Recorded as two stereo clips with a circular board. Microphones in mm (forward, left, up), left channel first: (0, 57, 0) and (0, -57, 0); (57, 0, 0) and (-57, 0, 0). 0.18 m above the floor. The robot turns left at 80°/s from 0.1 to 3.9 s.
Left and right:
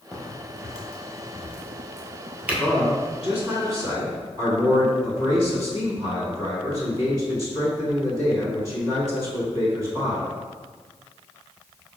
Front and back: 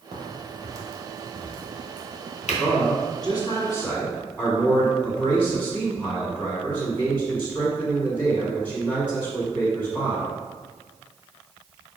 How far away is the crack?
About 1.3 m.